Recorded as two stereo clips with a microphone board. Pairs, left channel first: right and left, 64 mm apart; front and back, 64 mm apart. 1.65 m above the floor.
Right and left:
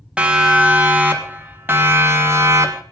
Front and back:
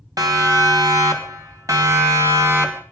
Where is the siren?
165° left, 3 m; by 2.8 s 130° left, 3 m.